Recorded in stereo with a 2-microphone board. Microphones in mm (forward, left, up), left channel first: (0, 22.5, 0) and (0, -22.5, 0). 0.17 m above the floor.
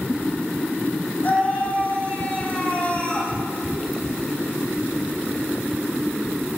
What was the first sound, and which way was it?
A scream, 40° left (ahead or behind).